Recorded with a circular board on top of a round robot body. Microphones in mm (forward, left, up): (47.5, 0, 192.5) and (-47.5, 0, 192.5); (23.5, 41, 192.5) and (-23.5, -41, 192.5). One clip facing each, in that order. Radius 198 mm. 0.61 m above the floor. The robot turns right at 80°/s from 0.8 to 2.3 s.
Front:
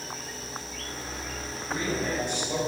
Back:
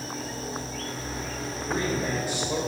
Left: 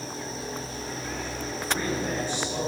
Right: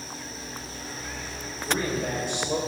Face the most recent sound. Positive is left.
turn(degrees=-90)